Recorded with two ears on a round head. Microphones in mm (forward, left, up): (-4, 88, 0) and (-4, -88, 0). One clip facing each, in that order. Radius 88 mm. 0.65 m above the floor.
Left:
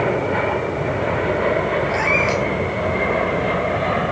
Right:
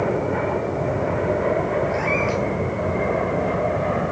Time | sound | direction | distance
1.9 | a cat meowing | 70° left (ahead or behind) | 5 m